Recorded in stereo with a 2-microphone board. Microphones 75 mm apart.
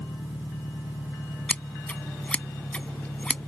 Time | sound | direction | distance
0.0 | an engine running | 65° left (ahead or behind) | ?
1.5 | scissors | 15° left (ahead or behind) | ?